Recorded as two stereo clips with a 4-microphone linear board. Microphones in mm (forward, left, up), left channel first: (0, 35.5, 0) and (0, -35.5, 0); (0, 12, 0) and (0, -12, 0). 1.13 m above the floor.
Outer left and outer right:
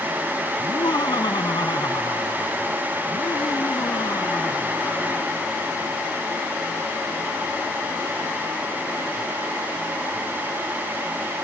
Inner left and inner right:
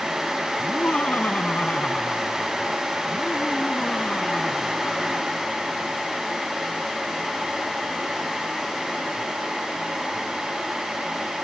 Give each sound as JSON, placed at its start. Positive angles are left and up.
{"t": 0.6, "sound": "laughter", "side_deg": 85}